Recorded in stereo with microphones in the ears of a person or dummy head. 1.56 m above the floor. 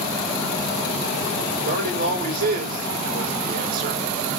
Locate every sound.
1.6 s a man speaking: 55° right (ahead or behind), 5 m